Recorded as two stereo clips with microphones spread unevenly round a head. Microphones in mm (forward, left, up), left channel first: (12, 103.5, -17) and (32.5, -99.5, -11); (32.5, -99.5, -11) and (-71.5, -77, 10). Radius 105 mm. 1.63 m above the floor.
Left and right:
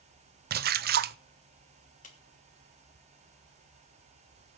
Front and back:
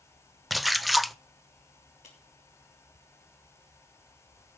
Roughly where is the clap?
Ahead left.